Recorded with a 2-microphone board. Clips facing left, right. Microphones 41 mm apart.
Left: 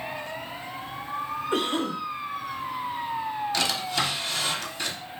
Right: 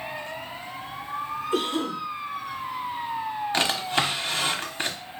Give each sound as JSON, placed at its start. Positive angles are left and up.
{"t": 1.5, "sound": "a cough", "side_deg": 45, "distance_m": 1.2}
{"t": 3.5, "sound": "a drawer", "side_deg": -35, "distance_m": 0.6}